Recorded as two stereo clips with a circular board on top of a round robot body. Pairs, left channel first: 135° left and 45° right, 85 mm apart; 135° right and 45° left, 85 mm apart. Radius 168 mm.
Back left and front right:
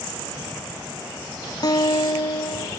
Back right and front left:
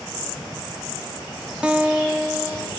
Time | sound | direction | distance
1.6 | a guitar | 120° left | 0.9 m